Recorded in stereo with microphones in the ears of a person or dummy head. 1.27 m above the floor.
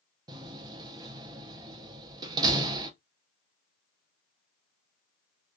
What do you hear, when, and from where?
0.3 s a door slam: 25° right (ahead or behind), 0.5 m